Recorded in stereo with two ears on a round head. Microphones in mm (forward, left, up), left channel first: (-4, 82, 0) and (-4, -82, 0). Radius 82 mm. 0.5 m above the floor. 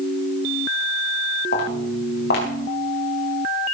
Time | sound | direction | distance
1.5 | footsteps | 60° left (ahead or behind) | 6 m